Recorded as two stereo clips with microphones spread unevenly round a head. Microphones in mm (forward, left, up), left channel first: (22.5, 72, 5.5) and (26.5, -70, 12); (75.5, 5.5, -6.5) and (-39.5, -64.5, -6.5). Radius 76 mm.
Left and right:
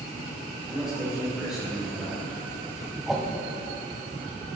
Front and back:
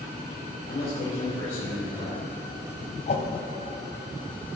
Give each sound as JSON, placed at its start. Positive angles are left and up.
{"t": 0.7, "sound": "a man speaking", "azimuth_deg": 0, "distance_m": 3.5}
{"t": 3.1, "sound": "a whoosh", "azimuth_deg": 0, "distance_m": 1.7}